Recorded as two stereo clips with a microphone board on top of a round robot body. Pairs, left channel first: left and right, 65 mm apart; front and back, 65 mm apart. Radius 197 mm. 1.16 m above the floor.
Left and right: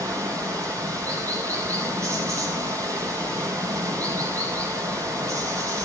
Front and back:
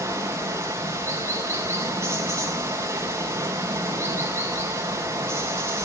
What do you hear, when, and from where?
0.0 s running water: 130° right, 4 m